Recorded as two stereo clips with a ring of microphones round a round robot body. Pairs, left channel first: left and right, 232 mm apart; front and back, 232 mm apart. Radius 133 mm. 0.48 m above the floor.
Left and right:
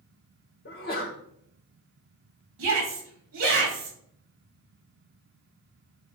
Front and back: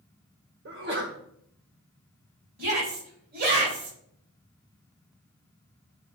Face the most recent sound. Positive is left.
turn(degrees=-125)